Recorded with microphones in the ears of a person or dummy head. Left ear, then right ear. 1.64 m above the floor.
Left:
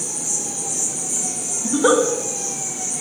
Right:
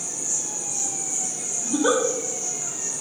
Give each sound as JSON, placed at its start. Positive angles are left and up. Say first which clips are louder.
{"t": 0.0, "sound": "an insect", "louder": "left 3 dB", "side_deg": 40, "distance_m": 3.0}
{"t": 1.6, "sound": "a giggle", "louder": "left 5 dB", "side_deg": 25, "distance_m": 1.4}